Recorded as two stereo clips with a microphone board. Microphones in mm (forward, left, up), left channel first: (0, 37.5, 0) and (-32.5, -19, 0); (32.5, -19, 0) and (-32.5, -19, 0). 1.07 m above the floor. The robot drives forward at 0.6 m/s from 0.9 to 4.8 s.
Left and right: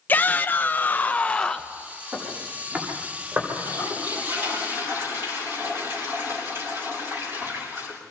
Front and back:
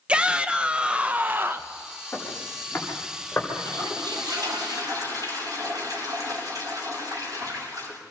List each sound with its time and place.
0.1 s a shout: 110° left, 0.9 m; by 1.8 s 140° left, 1.2 m
2.1 s footsteps: 70° right, 9.5 m; by 3.5 s 65° right, 9 m
3.5 s a toilet flushing: 170° right, 6.5 m